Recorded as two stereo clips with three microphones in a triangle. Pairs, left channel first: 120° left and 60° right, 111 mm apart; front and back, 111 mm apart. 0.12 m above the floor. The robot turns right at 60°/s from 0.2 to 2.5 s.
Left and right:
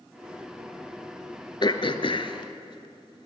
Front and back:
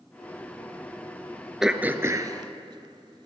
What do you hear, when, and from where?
1.6 s throat clearing: 95° left, 0.6 m; by 3.3 s 150° left, 0.6 m